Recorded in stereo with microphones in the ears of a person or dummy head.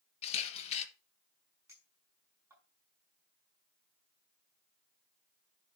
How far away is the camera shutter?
About 1.6 m.